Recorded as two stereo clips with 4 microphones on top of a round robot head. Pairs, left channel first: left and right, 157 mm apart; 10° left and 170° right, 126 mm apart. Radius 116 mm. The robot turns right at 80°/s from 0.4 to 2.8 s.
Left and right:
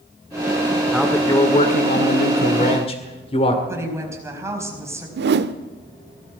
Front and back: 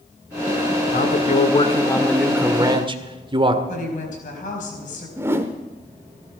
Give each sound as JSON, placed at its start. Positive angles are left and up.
{"t": 0.9, "sound": "a man speaking", "azimuth_deg": -10, "distance_m": 2.0}
{"t": 3.7, "sound": "a woman speaking", "azimuth_deg": -15, "distance_m": 4.5}
{"t": 5.2, "sound": "a whoosh", "azimuth_deg": -95, "distance_m": 0.7}